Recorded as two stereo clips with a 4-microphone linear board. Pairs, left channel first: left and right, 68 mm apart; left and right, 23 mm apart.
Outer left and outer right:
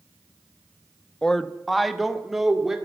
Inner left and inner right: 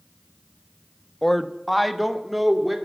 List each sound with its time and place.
1.2 s a woman speaking: 10° left (ahead or behind), 0.6 m; by 2.8 s 5° right (ahead or behind), 1.9 m